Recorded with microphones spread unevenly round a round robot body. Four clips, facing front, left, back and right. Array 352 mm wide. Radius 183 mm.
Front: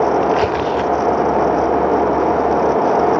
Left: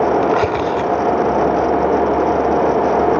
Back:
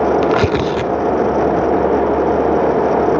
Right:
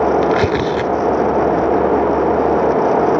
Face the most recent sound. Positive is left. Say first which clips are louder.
# right 1 dB, back 1 dB
turn(degrees=-150)